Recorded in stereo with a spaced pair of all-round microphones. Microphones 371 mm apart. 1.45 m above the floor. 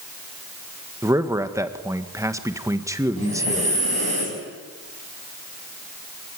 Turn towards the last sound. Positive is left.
turn(degrees=90)